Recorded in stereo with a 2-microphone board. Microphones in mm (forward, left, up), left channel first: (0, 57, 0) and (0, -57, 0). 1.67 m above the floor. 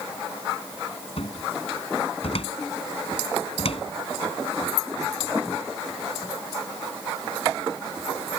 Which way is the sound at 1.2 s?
60° left (ahead or behind).